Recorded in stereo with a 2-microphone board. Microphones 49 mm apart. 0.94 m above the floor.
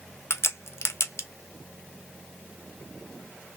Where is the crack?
70° left (ahead or behind), 0.7 m.